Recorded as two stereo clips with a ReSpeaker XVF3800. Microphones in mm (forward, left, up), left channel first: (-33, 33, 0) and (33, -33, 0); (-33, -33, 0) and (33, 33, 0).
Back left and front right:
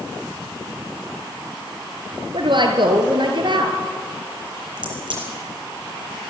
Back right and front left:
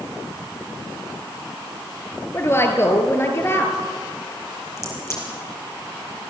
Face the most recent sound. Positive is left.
turn(degrees=-75)